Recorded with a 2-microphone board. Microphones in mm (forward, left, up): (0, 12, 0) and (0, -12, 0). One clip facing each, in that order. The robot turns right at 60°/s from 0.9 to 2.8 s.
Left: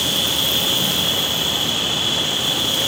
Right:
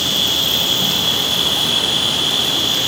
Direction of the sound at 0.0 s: 145° right.